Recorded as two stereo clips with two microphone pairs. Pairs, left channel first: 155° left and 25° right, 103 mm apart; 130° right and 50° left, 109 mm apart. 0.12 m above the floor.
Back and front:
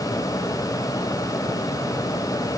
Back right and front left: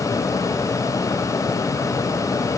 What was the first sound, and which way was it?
Only background noise.